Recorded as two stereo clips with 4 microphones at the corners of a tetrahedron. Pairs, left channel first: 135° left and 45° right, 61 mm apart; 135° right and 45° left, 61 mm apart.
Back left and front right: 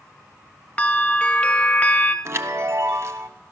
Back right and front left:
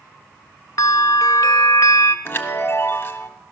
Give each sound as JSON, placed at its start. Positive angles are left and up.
{"t": 0.8, "sound": "a bell", "azimuth_deg": -160, "distance_m": 0.8}
{"t": 2.2, "sound": "a chime", "azimuth_deg": -85, "distance_m": 1.0}